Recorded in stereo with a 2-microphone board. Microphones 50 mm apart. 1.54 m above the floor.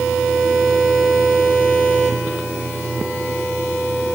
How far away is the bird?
I don't hear a bird.